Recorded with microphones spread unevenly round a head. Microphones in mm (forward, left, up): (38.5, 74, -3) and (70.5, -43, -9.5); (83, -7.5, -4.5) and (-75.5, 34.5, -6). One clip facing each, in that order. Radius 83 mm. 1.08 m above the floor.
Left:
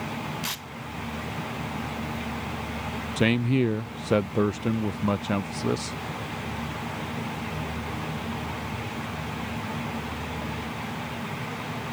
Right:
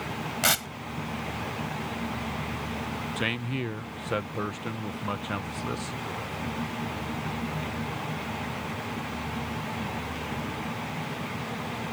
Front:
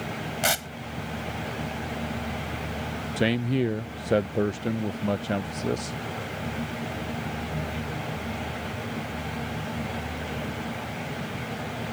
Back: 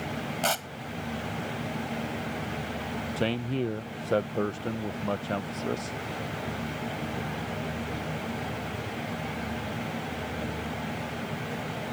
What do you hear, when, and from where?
0.4 s tearing paper: 90° right
3.2 s a man speaking: 55° left